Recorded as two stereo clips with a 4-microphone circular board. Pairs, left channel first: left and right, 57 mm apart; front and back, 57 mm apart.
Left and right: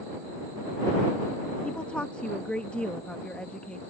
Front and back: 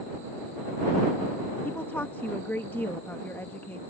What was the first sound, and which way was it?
A woman speaking, 30° left.